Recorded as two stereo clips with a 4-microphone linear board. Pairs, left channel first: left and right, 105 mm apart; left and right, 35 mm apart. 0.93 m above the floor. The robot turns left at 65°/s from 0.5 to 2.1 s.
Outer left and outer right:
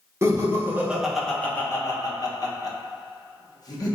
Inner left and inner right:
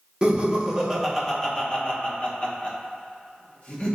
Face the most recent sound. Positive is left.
turn(degrees=120)